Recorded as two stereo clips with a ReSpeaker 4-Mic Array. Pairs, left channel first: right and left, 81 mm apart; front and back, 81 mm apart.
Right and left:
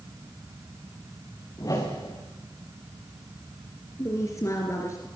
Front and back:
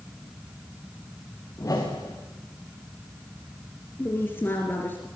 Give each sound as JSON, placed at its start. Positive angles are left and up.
{"t": 1.6, "sound": "a whoosh", "azimuth_deg": -50, "distance_m": 4.0}
{"t": 4.0, "sound": "a woman speaking", "azimuth_deg": -55, "distance_m": 2.5}